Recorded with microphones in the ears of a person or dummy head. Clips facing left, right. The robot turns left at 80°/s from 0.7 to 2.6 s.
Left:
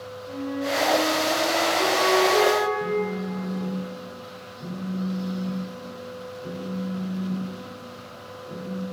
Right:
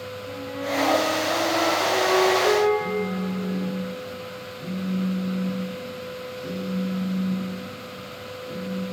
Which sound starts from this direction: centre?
A phone buzzing, at 2.8 s.